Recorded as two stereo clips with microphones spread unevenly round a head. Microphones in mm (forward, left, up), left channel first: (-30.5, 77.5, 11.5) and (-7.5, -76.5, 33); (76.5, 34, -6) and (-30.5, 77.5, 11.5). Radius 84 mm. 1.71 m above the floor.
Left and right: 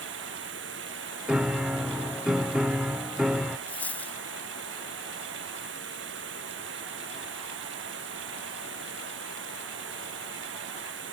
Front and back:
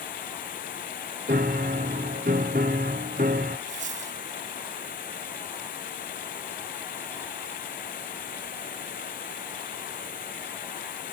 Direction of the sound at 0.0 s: 60° right.